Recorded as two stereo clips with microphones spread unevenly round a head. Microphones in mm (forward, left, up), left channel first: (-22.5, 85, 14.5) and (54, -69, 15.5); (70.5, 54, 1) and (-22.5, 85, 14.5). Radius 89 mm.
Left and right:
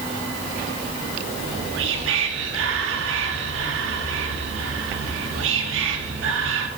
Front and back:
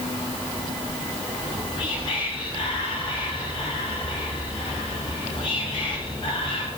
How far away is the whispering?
About 3 m.